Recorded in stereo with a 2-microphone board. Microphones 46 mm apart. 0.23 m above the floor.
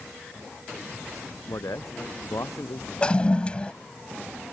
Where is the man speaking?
85° left.